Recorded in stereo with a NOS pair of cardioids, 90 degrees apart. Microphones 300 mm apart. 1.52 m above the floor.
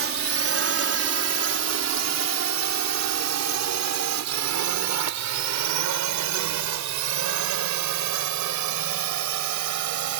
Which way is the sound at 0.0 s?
45° right.